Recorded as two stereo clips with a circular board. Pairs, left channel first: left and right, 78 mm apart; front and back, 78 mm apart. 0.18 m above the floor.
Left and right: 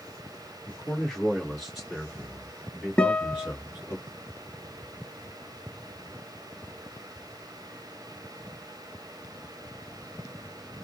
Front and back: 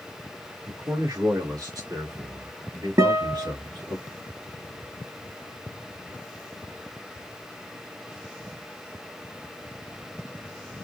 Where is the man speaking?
165° left, 2.5 m; by 4.0 s 165° right, 3.5 m.